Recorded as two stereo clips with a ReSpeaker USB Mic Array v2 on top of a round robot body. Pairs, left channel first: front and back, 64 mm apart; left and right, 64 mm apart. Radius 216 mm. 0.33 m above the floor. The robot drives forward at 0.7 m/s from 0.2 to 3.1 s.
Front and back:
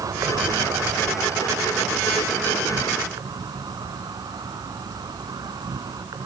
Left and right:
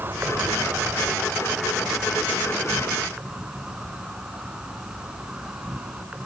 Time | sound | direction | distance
0.0 | an insect | 150° right | 1.1 m